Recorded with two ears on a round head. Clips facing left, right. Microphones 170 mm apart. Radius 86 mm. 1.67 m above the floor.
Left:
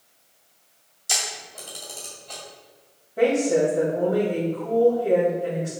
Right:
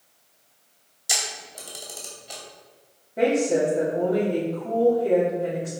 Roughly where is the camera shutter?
Centre.